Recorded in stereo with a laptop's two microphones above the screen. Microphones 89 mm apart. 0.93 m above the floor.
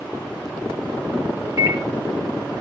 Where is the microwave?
35° right (ahead or behind), 0.8 m.